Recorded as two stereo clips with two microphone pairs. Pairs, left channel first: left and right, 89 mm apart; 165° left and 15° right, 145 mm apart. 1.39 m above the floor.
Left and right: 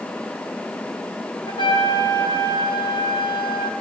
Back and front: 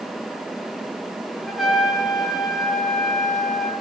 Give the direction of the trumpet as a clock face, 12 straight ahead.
10 o'clock.